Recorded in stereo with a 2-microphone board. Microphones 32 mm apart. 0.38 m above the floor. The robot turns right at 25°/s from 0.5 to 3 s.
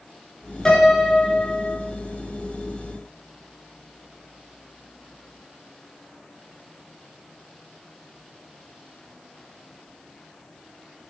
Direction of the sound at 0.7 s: 15° left (ahead or behind).